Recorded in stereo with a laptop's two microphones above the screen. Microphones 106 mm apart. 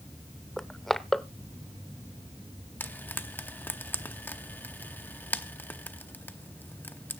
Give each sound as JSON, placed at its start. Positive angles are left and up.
{"t": 0.6, "sound": "crushing", "side_deg": 5, "distance_m": 0.6}
{"t": 2.8, "sound": "frying", "side_deg": 15, "distance_m": 0.7}